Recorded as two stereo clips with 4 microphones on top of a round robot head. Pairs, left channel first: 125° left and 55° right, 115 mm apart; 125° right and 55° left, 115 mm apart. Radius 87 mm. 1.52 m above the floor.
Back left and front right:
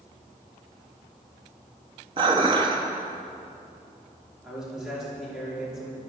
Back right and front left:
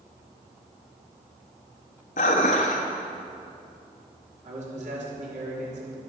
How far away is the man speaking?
About 5 m.